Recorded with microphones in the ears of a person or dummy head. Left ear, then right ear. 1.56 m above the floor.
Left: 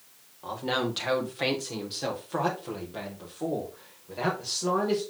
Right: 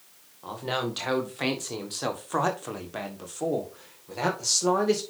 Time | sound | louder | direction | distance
0.4 | a man speaking | left 1 dB | centre (ahead or behind) | 2 m